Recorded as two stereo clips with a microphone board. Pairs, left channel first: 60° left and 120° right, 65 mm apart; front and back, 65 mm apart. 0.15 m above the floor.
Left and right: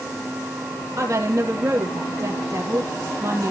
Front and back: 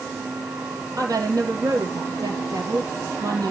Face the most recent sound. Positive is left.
turn(degrees=-160)